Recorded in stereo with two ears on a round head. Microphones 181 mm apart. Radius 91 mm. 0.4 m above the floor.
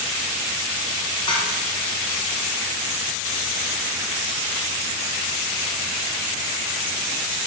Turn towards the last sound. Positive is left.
turn(degrees=25)  # may be behind; listen again after turning